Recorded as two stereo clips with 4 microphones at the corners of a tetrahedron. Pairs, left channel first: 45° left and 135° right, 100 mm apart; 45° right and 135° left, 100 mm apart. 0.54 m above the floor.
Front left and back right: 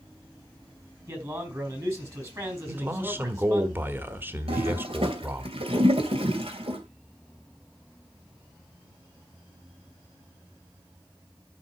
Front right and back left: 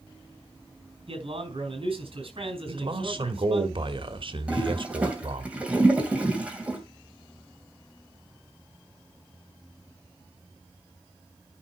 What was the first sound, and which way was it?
A man speaking, 165° left.